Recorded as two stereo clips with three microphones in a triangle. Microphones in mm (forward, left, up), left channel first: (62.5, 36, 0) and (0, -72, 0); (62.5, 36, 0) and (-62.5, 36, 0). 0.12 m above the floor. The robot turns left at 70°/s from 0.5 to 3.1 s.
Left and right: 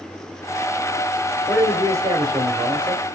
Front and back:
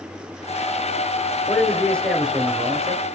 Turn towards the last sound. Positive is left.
turn(degrees=-160)